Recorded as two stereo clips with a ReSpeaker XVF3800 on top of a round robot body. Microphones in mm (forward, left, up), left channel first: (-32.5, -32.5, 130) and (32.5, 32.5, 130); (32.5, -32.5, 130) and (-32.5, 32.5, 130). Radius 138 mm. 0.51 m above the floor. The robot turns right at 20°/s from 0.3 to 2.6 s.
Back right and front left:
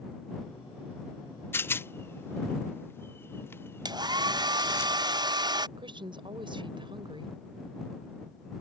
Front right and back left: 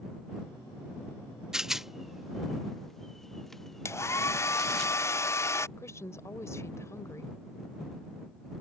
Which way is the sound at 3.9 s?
15° left.